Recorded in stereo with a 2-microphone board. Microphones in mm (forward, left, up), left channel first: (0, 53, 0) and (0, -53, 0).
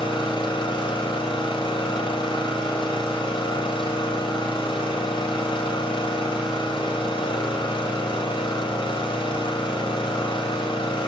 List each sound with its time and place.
0.0 s an engine running: 50° left (ahead or behind), 2 m